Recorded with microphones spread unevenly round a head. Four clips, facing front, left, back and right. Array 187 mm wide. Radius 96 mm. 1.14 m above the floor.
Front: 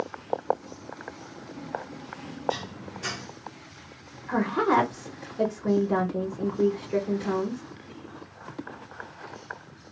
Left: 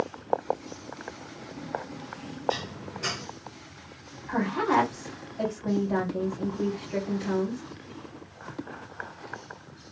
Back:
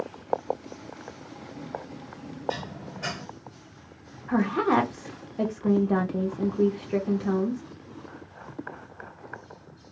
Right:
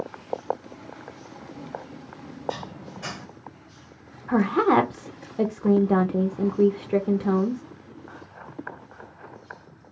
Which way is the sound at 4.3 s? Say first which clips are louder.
Right 6 dB, even; 85° right.